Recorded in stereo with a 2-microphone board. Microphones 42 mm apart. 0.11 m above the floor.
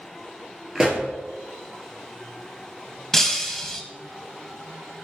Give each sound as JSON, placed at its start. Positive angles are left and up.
{"t": 0.8, "sound": "a pop", "side_deg": -15, "distance_m": 2.0}
{"t": 3.1, "sound": "breaking glass", "side_deg": 5, "distance_m": 1.4}